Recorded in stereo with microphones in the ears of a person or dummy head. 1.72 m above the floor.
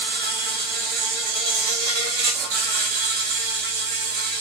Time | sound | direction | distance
0.0 | an insect | 60° right (ahead or behind) | 0.7 m